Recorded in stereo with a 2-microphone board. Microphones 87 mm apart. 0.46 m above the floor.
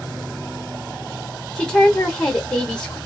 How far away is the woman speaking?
About 0.9 m.